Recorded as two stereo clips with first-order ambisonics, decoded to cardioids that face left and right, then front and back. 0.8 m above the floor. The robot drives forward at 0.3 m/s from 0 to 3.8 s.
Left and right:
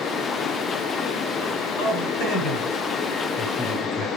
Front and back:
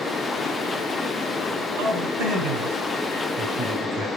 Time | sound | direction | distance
1.8 | a man speaking | 145° left | 5.5 m